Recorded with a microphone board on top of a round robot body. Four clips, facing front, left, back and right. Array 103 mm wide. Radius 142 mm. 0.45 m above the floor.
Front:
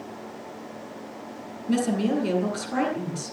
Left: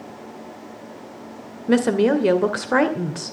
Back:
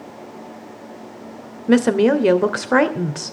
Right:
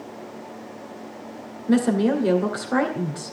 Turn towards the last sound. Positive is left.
turn(degrees=160)